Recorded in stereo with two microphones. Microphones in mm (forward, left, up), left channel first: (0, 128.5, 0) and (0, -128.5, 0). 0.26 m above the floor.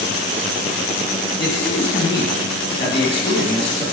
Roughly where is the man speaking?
Left.